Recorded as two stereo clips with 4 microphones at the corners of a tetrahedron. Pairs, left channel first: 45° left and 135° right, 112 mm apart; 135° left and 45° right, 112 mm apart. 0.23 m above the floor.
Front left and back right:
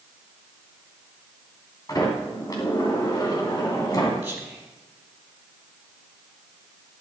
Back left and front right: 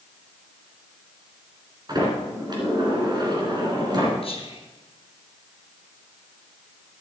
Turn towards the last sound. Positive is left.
turn(degrees=145)